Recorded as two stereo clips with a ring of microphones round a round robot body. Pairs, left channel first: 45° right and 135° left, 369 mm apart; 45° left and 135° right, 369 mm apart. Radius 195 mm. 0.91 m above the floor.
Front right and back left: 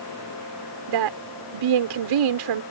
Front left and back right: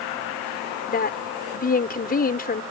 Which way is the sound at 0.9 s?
110° left.